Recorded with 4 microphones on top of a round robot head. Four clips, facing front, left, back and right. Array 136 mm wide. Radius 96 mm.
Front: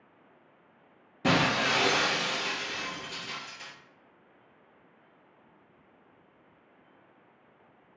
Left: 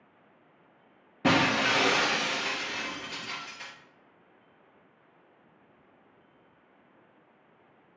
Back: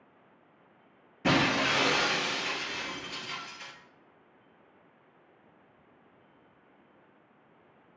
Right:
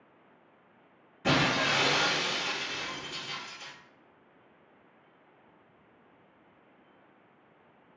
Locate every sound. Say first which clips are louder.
1.2 s breaking glass: left 3 dB, even; 70° left, 0.7 m